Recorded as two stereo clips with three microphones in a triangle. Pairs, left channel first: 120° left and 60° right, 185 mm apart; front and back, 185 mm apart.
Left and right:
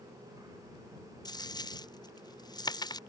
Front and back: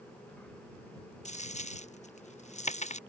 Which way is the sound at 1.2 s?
50° left.